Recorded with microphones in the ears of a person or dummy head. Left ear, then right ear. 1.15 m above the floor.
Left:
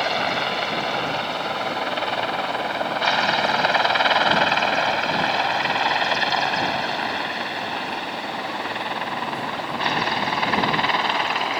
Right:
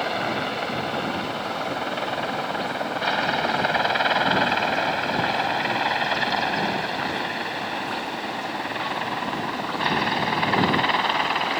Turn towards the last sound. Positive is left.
turn(degrees=10)  # may be behind; listen again after turning